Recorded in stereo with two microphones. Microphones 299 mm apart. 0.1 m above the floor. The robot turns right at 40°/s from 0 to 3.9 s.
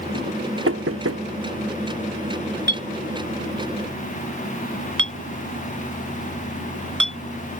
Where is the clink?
35° right (ahead or behind); by 7.2 s 85° right.